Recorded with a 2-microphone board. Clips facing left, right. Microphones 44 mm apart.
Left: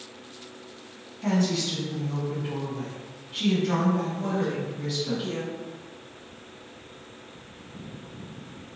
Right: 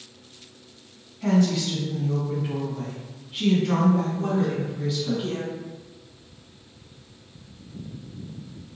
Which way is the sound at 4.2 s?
35° right (ahead or behind).